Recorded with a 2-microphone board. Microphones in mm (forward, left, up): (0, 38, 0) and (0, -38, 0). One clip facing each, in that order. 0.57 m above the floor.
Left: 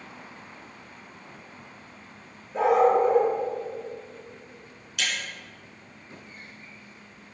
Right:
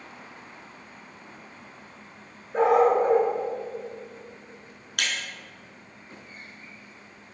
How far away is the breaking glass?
About 3.5 m.